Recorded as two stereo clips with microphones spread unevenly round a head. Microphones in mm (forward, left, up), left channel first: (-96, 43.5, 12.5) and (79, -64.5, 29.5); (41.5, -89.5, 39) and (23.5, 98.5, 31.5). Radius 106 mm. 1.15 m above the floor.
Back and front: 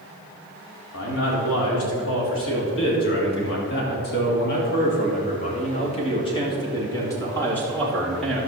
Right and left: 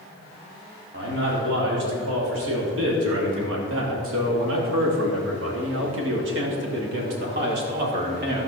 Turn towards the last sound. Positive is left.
turn(degrees=60)